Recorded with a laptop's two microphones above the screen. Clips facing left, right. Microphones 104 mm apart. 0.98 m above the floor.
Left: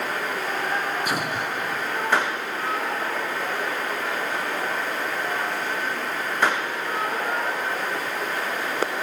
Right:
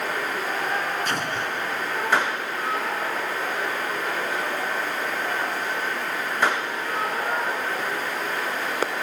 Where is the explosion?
10° left (ahead or behind).